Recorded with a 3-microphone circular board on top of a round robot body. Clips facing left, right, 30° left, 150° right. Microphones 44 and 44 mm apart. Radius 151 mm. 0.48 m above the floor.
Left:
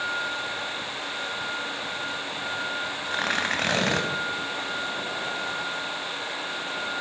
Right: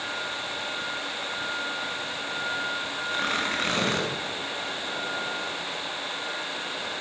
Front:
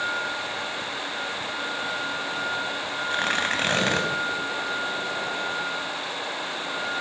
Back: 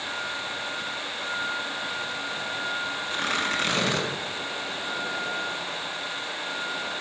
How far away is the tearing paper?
About 3.5 m.